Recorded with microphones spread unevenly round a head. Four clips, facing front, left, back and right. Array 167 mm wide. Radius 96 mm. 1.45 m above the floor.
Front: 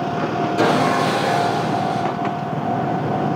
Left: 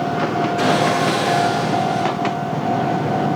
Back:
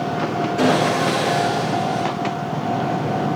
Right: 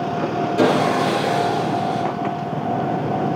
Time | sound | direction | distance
0.6 | sawing | 65° right | 4.5 m